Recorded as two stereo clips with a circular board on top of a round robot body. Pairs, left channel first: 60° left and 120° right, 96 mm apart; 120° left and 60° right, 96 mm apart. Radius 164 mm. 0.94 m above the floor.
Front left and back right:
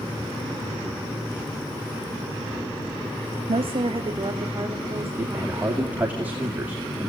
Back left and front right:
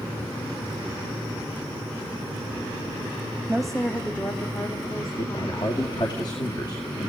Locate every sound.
3.5 s a woman speaking: 140° right, 1.2 m; by 6.2 s 165° left, 4 m
5.2 s a man speaking: 165° left, 2.5 m